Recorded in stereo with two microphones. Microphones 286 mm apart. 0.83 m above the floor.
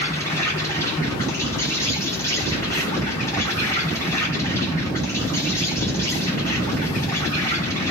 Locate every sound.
0.0 s an insect: 10° left (ahead or behind), 2.5 m